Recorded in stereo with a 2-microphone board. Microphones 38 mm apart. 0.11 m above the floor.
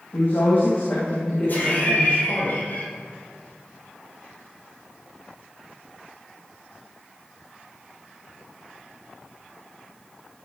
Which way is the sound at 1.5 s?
50° left (ahead or behind).